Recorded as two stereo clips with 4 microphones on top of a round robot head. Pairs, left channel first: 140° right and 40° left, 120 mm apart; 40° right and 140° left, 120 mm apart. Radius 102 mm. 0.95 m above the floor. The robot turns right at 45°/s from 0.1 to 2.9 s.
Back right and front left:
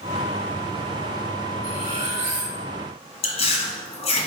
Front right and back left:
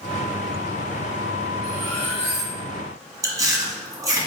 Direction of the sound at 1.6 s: 15° left.